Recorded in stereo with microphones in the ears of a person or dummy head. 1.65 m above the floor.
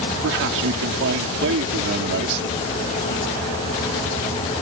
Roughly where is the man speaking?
Right.